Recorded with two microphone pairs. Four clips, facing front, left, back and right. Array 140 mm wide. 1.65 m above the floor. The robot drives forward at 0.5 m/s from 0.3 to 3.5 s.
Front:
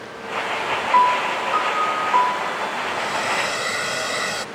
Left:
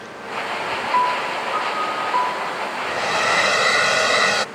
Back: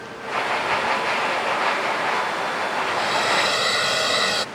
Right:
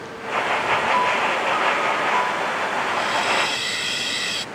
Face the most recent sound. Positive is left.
turn(degrees=110)